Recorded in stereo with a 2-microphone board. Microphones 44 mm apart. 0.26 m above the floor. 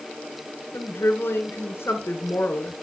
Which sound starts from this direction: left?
A woman speaking, at 0.7 s.